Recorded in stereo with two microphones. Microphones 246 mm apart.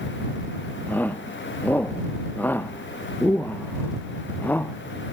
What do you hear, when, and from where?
0.9 s a shout: 5° left (ahead or behind)